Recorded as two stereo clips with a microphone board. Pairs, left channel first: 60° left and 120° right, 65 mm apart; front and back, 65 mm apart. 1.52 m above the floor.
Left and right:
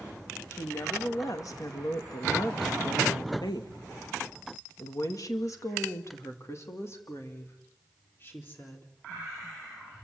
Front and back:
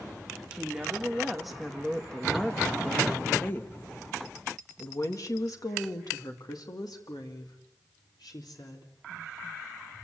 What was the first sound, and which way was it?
A woman speaking, 105° left.